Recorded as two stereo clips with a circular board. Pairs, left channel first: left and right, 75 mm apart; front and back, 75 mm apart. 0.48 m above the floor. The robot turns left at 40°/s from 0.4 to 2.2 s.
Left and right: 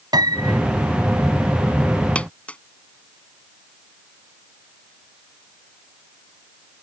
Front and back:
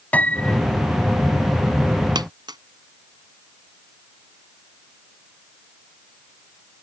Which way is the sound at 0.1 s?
70° right.